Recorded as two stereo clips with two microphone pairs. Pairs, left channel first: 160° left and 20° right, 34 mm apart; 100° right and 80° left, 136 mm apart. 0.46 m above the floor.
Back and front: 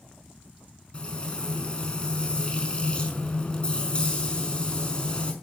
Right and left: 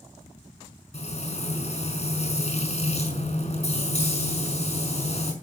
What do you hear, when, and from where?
0.9 s frying: 135° right, 5 m